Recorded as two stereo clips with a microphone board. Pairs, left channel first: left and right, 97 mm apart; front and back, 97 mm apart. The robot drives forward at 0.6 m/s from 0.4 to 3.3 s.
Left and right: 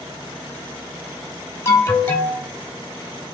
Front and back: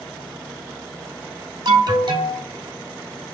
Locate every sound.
1.6 s an alarm: 145° left, 1.1 m; by 2.4 s 155° left, 1.5 m